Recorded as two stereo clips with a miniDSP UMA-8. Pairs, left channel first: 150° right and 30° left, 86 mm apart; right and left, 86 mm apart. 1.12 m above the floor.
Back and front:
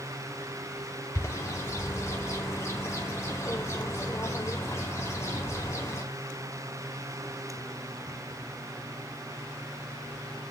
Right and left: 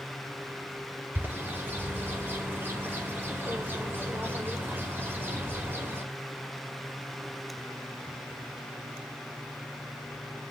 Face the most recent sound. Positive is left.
turn(degrees=155)